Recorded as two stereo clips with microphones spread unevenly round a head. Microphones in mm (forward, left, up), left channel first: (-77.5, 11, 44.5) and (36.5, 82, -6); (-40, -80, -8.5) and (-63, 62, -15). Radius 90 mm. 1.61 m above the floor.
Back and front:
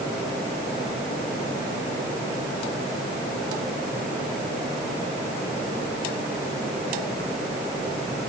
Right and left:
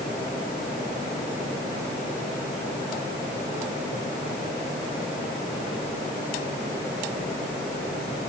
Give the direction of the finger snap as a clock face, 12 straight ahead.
No finger snap in this recording.